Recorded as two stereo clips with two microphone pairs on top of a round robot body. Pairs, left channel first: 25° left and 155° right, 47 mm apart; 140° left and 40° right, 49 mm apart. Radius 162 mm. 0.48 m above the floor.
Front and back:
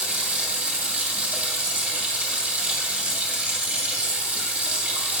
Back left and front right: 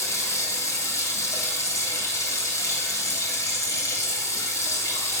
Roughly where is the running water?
Behind left.